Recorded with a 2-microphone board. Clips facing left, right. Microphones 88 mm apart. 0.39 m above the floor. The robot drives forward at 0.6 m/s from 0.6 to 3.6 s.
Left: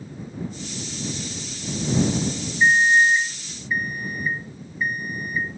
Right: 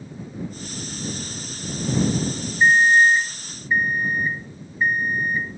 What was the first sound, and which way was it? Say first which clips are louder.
An alarm clock: right 2 dB; 35° right (ahead or behind).